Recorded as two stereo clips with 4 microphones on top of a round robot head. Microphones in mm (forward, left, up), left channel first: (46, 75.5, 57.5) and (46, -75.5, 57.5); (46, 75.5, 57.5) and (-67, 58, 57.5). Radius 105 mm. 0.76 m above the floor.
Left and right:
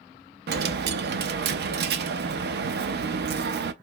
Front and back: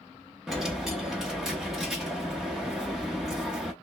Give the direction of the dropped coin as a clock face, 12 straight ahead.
3 o'clock.